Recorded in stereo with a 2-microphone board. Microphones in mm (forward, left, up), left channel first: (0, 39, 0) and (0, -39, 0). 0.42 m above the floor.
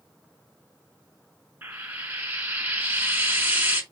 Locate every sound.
1.6 s frying: 25° right (ahead or behind), 1.0 m